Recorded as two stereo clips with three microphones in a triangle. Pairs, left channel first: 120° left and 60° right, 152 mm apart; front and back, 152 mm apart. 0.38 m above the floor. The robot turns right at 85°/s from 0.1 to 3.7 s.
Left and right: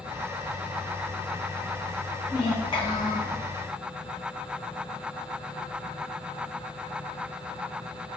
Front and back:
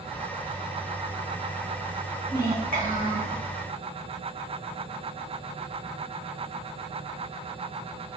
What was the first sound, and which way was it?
A child speaking, 140° left.